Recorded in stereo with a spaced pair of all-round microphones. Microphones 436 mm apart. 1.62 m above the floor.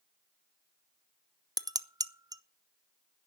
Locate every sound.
1.6 s dishes clattering: 10° right (ahead or behind), 0.6 m